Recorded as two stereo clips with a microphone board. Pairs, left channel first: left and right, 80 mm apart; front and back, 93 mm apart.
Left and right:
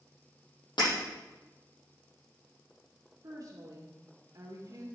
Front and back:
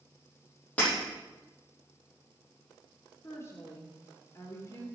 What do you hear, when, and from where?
0.8 s breaking glass: 75° left, 6.5 m
3.2 s a woman speaking: 55° right, 2.5 m